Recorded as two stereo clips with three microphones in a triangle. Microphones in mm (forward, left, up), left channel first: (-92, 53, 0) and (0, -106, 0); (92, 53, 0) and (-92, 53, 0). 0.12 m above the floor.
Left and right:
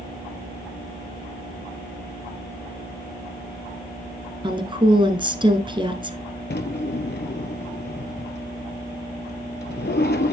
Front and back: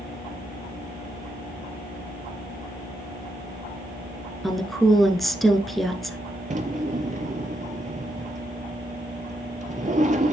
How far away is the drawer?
About 0.8 m.